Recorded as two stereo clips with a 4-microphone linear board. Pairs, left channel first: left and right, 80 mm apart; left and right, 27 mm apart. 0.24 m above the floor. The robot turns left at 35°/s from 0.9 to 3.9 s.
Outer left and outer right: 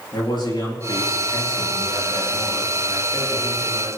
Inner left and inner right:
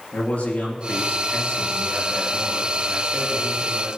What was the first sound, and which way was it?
A man speaking, 110° left.